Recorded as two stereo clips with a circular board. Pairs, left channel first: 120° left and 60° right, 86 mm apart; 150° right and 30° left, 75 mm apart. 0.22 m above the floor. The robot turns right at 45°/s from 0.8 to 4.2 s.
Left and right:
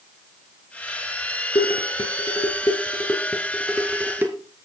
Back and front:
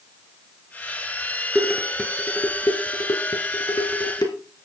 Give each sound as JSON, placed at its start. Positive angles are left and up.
{"t": 1.6, "sound": "dishes clattering", "azimuth_deg": 115, "distance_m": 2.5}